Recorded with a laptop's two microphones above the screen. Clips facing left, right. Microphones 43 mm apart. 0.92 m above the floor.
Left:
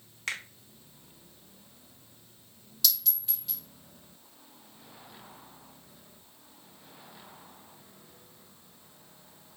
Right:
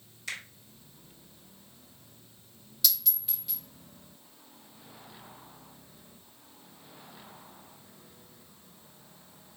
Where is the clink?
Centre (ahead or behind), 2.5 m.